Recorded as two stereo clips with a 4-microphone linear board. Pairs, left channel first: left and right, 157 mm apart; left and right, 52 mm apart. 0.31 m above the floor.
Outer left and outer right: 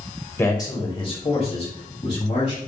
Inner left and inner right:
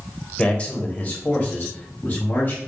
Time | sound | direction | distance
0.4 | a man speaking | 20° left (ahead or behind) | 0.9 m